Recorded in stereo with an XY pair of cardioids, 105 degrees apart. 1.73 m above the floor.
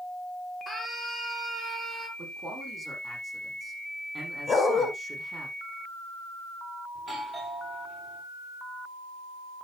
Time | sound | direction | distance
0.7 | a scream | 5° left | 5 m
2.2 | a man speaking | 30° right | 7.5 m
4.5 | a dog barking | 35° left | 3.5 m
7.0 | a doorbell | 15° right | 7.5 m